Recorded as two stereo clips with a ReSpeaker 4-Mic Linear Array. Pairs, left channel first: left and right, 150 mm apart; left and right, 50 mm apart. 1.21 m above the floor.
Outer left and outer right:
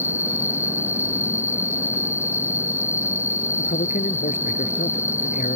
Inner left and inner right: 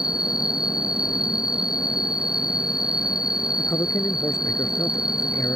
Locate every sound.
0.0 s an insect: 15° right (ahead or behind)
3.6 s a man speaking: 75° left (ahead or behind)